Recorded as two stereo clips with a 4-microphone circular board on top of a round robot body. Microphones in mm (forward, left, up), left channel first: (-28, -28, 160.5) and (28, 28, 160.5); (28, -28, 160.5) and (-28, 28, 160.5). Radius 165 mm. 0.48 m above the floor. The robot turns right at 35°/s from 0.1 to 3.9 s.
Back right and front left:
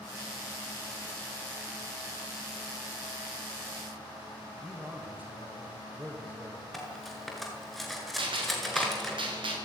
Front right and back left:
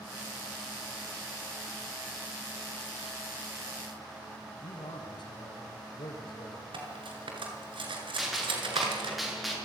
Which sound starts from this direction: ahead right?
A man speaking, at 4.6 s.